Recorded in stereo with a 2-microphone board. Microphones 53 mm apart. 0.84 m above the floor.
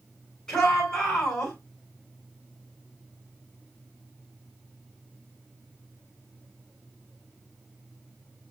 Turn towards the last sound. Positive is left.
turn(degrees=15)  # may be behind; listen again after turning